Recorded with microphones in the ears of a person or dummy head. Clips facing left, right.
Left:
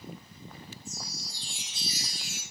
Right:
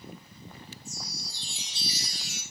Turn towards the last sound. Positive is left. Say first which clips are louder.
# even
turn(degrees=-80)